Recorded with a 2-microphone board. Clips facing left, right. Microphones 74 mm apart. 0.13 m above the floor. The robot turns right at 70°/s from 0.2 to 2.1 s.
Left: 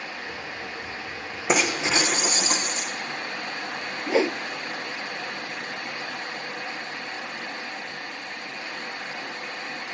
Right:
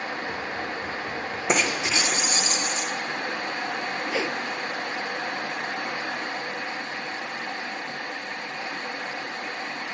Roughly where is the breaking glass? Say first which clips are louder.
Left 2 dB; ahead.